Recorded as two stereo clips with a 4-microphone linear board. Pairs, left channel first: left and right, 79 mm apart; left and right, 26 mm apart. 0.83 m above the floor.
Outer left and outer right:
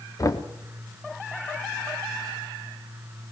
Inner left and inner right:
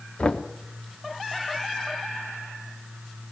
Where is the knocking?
45° left (ahead or behind), 1.2 m.